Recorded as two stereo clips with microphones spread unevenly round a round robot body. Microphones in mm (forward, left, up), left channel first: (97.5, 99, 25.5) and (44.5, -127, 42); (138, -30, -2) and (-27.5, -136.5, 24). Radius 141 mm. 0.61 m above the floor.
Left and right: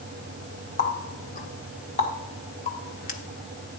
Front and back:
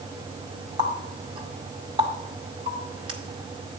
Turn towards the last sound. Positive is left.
turn(degrees=135)